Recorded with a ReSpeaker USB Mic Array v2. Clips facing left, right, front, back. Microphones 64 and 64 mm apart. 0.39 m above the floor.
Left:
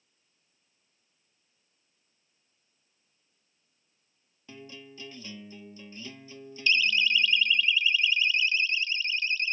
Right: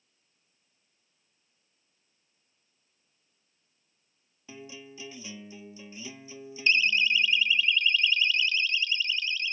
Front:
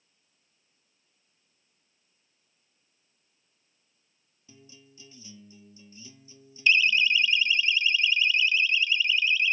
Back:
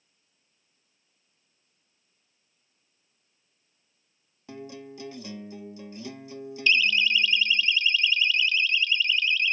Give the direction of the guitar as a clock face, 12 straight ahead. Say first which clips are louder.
Right 1 dB, back 15 dB; 6 o'clock.